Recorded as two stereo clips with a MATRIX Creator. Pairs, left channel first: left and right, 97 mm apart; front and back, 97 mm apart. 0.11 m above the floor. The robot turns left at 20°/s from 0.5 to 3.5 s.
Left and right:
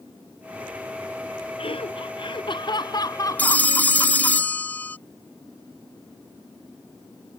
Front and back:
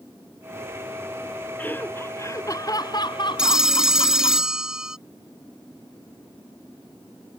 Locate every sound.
1.6 s laughter: 75° left; by 4.4 s 35° left
3.4 s a phone ringing: 110° left